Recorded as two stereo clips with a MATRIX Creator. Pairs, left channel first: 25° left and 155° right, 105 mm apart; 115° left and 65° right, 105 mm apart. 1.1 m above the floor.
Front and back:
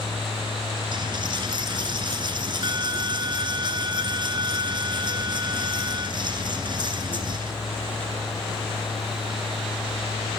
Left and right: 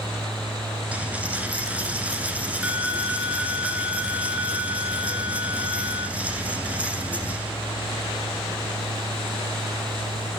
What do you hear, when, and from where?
0.9 s a dropped coin: 140° right, 1.4 m